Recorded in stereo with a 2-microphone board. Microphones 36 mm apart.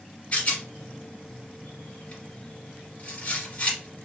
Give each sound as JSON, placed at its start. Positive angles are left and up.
{"t": 0.3, "sound": "a rattle", "side_deg": 45, "distance_m": 2.5}